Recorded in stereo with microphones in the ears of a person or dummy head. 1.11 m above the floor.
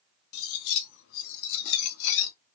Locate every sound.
0.3 s cutlery clinking: 70° left (ahead or behind), 0.5 m